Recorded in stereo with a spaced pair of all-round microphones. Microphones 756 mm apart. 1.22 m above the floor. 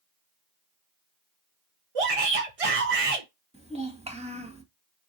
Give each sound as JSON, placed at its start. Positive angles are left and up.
{"t": 1.9, "sound": "a shout", "side_deg": -50, "distance_m": 0.9}
{"t": 3.5, "sound": "a child speaking", "side_deg": -10, "distance_m": 1.5}